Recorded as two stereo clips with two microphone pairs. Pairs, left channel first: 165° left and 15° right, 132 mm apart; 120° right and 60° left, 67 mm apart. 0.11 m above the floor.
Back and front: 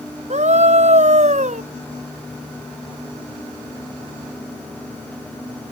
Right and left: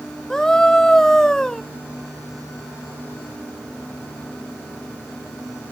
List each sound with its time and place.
0.3 s a scream: 40° right